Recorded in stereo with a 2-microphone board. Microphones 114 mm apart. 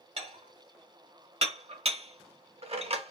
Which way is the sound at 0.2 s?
65° right (ahead or behind).